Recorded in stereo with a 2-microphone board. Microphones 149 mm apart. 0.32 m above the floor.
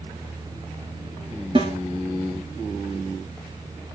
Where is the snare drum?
35° right (ahead or behind), 2 m.